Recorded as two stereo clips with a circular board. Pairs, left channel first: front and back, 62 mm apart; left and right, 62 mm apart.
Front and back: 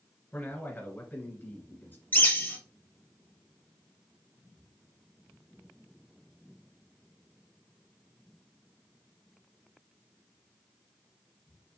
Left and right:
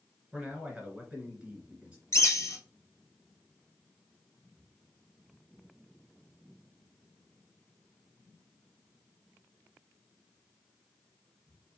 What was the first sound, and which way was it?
A man speaking, 30° right.